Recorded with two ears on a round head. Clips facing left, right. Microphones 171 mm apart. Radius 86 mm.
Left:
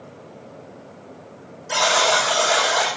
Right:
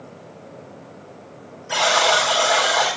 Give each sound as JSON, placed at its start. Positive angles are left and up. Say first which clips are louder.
{"t": 1.7, "sound": "a buzzer", "louder": "right 1 dB", "side_deg": 25, "distance_m": 9.0}